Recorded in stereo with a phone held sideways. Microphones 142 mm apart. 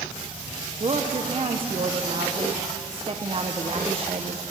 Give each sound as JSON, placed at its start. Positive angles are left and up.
{"t": 0.8, "sound": "a woman speaking", "side_deg": -40, "distance_m": 1.1}